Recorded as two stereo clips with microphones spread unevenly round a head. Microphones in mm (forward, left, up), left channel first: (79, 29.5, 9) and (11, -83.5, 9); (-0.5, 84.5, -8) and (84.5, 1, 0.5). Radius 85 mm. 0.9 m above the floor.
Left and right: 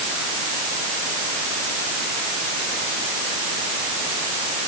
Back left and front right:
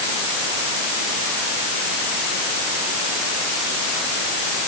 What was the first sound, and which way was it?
Only background noise.